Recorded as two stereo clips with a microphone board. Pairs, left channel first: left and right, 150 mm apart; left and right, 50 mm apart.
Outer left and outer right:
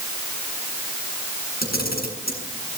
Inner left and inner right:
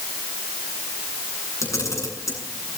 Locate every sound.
1.6 s a camera shutter: 85° left, 8 m